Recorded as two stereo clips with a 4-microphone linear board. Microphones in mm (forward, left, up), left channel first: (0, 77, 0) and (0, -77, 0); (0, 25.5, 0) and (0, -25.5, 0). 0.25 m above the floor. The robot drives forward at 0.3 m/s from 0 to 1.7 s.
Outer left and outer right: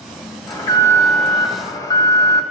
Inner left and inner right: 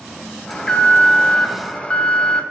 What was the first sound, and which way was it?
An alarm, 20° left (ahead or behind).